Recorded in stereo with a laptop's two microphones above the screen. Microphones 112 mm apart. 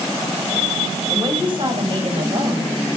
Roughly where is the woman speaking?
Right.